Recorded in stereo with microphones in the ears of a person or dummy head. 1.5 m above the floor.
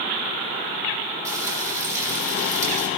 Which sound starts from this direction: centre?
Frying, at 1.2 s.